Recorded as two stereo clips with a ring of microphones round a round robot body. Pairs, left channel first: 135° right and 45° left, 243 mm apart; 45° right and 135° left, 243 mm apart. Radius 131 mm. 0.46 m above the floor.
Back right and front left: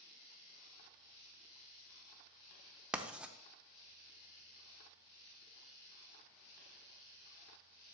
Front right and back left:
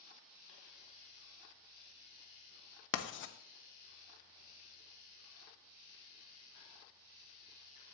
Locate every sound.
2.9 s writing: 40° right, 0.8 m